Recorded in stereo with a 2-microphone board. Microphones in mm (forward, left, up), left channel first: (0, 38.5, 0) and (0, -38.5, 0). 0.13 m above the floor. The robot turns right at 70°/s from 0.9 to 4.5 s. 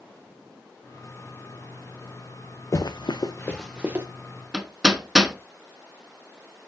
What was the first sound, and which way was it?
Running footsteps, 40° left (ahead or behind).